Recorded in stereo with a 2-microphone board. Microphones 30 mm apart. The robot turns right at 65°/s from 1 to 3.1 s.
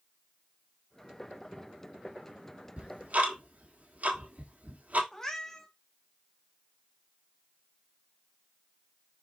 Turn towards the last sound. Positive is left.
turn(degrees=15)  # may be behind; listen again after turning